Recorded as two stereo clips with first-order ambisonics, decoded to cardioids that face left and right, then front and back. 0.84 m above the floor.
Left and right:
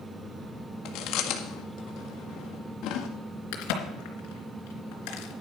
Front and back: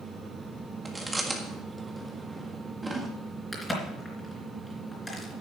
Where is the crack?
85° left, 3.5 m.